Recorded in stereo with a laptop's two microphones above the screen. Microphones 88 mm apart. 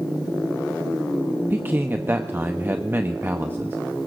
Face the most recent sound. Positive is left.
turn(degrees=-25)  # may be behind; listen again after turning